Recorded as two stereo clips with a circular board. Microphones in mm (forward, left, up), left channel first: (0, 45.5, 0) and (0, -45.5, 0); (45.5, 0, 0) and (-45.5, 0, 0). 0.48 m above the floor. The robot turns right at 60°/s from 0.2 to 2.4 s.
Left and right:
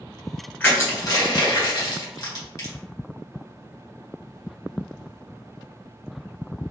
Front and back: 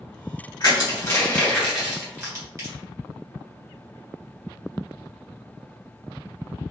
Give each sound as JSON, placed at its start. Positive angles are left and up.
{"t": 0.6, "sound": "crushing", "azimuth_deg": 20, "distance_m": 1.4}